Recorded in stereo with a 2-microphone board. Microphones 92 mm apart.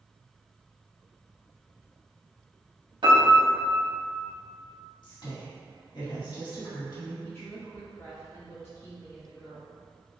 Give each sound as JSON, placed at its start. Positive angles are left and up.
{"t": 3.0, "sound": "a piano", "side_deg": -55, "distance_m": 1.2}
{"t": 5.0, "sound": "a woman speaking", "side_deg": 55, "distance_m": 1.7}
{"t": 7.2, "sound": "a woman speaking", "side_deg": 25, "distance_m": 0.9}